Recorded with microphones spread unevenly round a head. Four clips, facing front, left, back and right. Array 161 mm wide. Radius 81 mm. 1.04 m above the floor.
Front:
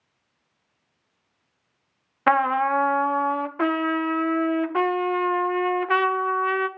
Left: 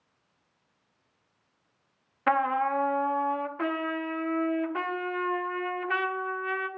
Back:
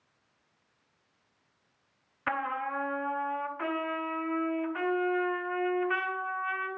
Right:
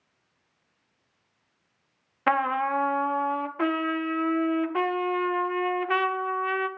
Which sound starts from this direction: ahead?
A trumpet, at 2.3 s.